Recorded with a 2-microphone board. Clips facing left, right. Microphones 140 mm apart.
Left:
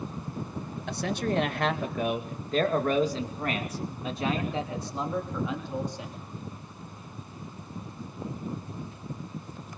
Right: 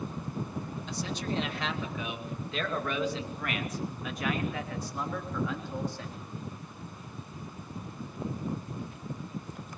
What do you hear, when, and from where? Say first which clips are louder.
0.9 s a man speaking: left 7 dB; 70° left (ahead or behind), 2.5 m; by 6.2 s 20° left (ahead or behind), 4 m